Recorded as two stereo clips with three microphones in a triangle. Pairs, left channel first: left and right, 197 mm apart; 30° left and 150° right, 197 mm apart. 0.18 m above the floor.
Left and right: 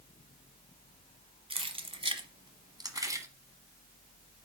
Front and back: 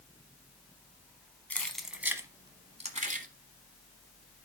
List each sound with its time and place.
1.5 s keys jangling: 50° right, 1.1 m; by 3.3 s 160° right, 1.1 m